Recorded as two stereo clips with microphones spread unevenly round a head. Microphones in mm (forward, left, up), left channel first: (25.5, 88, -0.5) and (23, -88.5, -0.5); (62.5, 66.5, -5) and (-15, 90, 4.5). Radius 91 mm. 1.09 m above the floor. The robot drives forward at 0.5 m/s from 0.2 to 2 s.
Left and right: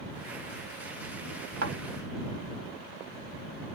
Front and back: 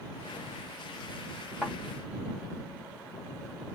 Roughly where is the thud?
Right.